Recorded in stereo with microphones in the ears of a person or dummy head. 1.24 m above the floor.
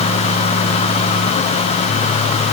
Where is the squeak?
No squeak in this recording.